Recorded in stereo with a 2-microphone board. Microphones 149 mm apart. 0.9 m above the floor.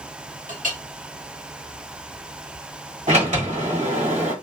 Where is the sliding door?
55° right (ahead or behind), 1.4 m.